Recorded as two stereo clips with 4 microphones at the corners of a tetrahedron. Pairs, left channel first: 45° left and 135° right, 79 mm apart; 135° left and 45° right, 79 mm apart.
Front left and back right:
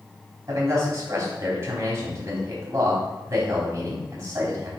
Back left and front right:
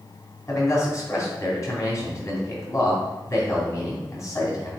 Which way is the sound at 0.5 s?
175° left.